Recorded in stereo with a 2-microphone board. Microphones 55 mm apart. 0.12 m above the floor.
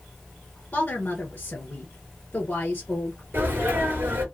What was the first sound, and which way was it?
A woman speaking, 30° left (ahead or behind).